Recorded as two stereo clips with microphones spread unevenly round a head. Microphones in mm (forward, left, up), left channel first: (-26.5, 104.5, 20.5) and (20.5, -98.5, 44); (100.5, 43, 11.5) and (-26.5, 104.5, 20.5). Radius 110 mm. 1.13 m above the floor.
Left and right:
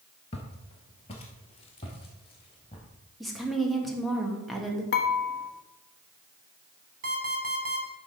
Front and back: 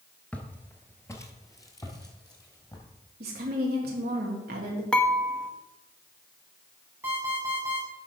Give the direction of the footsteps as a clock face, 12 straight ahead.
10 o'clock.